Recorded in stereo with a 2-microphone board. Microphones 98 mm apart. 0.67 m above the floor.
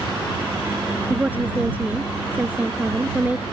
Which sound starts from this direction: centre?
A woman speaking, at 1.1 s.